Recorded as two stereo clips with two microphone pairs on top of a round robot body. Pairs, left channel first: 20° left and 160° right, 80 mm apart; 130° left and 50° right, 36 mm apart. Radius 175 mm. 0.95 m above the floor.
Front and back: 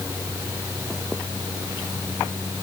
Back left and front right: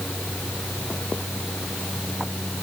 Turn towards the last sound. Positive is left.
No sound to turn to.